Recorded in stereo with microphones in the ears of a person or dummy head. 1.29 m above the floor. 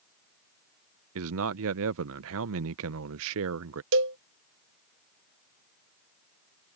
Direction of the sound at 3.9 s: 60° right (ahead or behind).